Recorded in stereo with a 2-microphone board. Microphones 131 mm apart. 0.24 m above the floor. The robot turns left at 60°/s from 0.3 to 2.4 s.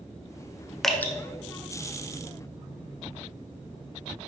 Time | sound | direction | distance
0.8 | dripping | centre (ahead or behind) | 0.9 m